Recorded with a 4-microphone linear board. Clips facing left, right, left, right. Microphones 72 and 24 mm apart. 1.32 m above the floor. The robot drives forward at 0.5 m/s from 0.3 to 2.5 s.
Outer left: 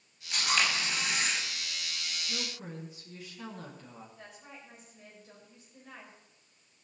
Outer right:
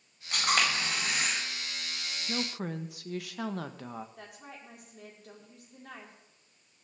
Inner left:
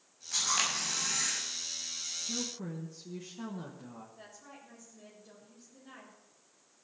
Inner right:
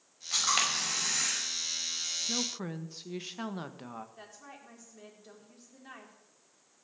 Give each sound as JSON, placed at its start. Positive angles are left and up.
{"t": 0.3, "sound": "a camera shutter", "side_deg": -55, "distance_m": 5.5}
{"t": 2.3, "sound": "a woman speaking", "side_deg": -70, "distance_m": 1.4}
{"t": 4.2, "sound": "a woman speaking", "side_deg": -70, "distance_m": 4.5}